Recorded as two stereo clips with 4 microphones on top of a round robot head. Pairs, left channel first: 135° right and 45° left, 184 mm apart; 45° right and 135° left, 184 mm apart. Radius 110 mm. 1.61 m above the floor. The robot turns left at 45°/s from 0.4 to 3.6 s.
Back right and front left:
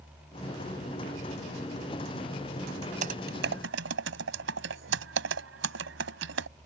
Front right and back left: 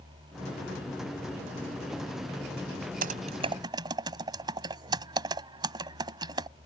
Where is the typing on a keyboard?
95° left; by 6.5 s 70° left.